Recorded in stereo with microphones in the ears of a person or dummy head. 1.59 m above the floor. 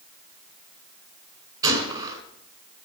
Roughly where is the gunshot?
Right.